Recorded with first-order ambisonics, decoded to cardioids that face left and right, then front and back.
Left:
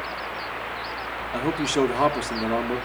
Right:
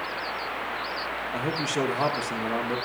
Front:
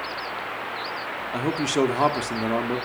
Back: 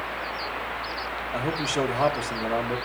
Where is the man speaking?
40° left, 1.0 m.